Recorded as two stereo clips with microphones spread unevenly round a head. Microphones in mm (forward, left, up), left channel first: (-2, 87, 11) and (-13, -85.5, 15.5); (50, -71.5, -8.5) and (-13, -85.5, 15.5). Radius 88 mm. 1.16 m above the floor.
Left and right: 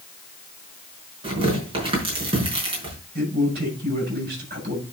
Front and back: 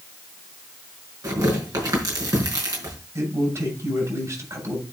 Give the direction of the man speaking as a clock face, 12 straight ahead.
5 o'clock.